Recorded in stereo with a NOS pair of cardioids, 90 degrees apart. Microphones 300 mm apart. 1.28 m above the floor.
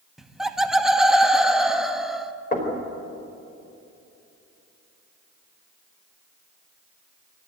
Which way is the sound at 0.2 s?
Straight ahead.